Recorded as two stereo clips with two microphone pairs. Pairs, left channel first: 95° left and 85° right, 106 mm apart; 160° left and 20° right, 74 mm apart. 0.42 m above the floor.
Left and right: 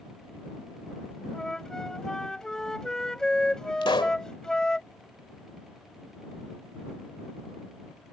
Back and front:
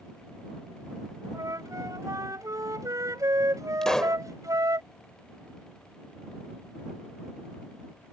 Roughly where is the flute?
Ahead.